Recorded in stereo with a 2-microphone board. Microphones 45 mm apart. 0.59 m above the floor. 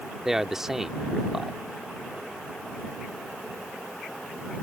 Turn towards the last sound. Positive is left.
turn(degrees=-10)  # may be behind; listen again after turning